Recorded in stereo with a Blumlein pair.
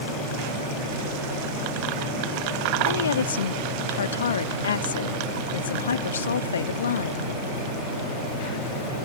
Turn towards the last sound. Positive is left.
turn(degrees=70)